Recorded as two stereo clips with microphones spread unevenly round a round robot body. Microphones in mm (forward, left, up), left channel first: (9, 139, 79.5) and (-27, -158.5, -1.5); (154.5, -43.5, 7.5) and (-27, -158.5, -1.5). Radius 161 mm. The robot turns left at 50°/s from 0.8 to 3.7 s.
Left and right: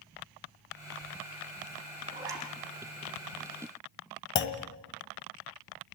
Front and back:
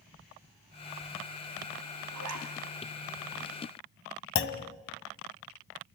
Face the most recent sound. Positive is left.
turn(degrees=20)